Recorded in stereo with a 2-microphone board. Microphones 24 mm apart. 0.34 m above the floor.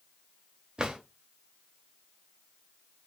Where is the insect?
No insect in this recording.